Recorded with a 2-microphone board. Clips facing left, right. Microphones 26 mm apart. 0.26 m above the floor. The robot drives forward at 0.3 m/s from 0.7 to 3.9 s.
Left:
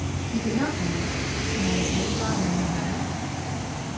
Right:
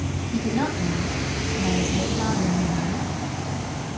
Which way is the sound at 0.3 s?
35° right (ahead or behind).